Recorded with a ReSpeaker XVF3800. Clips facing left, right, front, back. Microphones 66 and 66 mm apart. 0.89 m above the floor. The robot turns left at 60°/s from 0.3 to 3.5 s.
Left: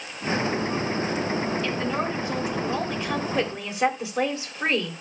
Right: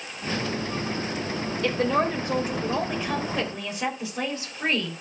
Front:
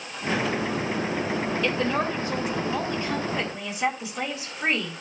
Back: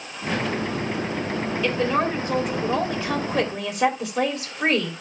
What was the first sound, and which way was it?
A woman speaking, 95° right.